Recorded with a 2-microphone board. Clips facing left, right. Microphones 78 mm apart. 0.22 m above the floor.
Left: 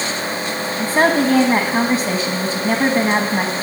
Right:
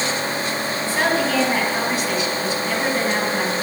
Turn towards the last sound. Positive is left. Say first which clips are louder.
# left 6 dB
turn(degrees=40)  # may be behind; listen again after turning